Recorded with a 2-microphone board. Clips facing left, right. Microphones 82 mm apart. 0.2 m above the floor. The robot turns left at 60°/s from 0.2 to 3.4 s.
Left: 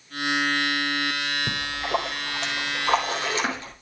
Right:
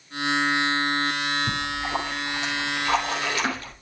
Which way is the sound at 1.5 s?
135° left.